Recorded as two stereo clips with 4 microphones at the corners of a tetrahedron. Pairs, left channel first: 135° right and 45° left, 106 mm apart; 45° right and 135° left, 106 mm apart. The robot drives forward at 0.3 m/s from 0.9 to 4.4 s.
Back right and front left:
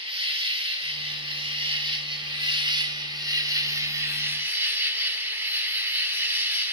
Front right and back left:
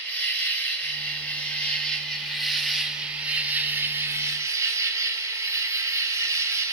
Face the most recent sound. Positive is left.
turn(degrees=100)